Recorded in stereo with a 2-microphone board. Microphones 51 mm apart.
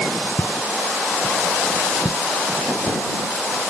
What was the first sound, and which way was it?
Footsteps, 30° left (ahead or behind).